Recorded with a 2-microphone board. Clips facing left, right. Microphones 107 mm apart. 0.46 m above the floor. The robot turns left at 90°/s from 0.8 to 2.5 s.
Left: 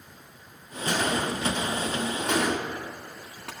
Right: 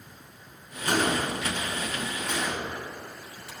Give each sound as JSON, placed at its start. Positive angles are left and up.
{"t": 0.9, "sound": "a gunshot", "side_deg": -55, "distance_m": 1.7}